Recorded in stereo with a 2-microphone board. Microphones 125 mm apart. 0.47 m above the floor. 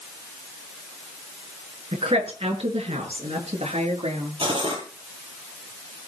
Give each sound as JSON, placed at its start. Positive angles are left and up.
{"t": 1.9, "sound": "a woman speaking", "side_deg": -45, "distance_m": 6.0}
{"t": 4.4, "sound": "cutlery clinking", "side_deg": -40, "distance_m": 6.5}